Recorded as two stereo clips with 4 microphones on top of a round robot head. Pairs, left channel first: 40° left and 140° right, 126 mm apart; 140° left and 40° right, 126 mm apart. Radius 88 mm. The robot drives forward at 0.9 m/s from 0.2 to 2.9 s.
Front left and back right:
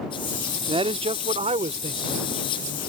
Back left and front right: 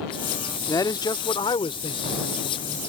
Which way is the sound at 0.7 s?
165° right.